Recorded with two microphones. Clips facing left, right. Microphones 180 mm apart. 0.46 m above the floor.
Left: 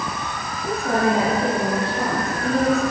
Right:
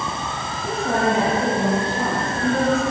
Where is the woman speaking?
5° right (ahead or behind), 9 m.